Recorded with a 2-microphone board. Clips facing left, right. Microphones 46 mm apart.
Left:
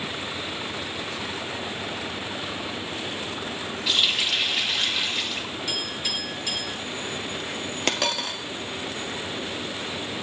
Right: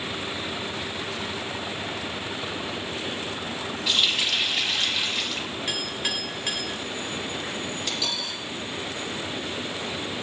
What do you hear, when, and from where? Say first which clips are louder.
3.9 s a running tap: even; 5° left (ahead or behind), 0.8 m
5.7 s a clink: right 2 dB; 50° right (ahead or behind), 1.9 m
7.9 s a dropped coin: left 4 dB; 65° left (ahead or behind), 0.7 m